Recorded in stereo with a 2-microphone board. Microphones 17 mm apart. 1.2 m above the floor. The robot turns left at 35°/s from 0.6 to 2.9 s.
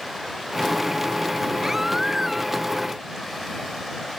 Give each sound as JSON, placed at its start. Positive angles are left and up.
{"t": 1.6, "sound": "a baby crying", "azimuth_deg": -140}